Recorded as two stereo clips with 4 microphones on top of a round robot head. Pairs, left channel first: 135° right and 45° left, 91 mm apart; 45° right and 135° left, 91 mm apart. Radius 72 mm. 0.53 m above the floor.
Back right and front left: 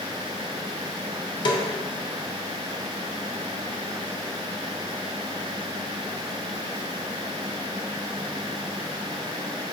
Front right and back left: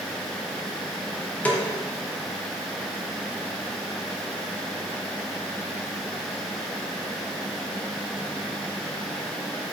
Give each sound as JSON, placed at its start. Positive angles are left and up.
{"t": 1.4, "sound": "a snare drum", "azimuth_deg": -120, "distance_m": 0.5}